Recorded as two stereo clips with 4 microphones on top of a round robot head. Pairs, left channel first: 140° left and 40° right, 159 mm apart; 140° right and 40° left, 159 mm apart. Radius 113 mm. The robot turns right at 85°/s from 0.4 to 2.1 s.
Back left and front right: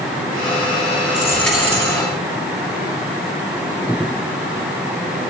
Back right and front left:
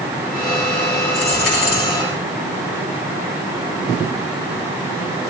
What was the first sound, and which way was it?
A dropped coin, 165° right.